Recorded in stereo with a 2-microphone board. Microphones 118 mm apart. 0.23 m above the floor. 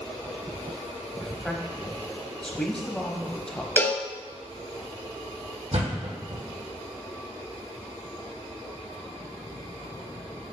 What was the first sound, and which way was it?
A man speaking, 5° left (ahead or behind).